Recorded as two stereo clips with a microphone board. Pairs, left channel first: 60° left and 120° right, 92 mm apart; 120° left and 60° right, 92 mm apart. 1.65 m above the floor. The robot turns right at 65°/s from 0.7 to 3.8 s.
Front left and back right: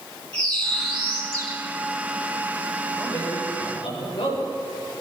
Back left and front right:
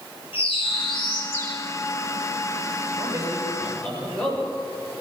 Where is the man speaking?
10° right, 8.5 m; by 4.4 s 45° left, 8.5 m.